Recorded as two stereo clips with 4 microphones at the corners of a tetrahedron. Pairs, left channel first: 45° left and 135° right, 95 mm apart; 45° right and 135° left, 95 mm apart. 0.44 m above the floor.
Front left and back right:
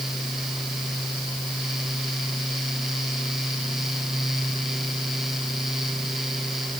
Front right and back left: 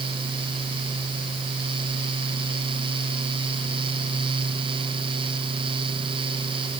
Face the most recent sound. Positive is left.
No sound to turn to.